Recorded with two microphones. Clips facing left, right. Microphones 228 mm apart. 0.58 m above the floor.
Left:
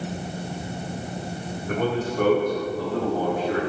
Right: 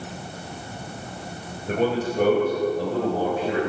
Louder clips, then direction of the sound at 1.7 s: Right 2 dB; 30° right (ahead or behind).